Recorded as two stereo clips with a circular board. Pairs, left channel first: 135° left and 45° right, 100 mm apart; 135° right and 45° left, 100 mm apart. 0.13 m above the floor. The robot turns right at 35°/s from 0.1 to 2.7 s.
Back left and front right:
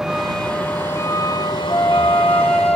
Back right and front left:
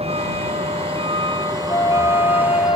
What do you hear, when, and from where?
0.0 s a vehicle: 40° left; by 2.8 s 130° left
1.7 s a flute: 175° right; by 2.8 s 140° right